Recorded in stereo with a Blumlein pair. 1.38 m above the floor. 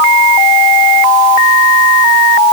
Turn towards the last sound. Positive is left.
No sound to turn to.